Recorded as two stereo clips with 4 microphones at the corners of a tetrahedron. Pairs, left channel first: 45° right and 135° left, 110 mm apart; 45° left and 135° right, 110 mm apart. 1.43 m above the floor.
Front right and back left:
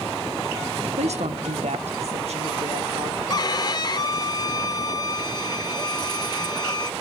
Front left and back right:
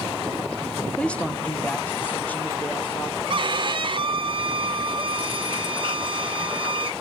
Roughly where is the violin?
Right.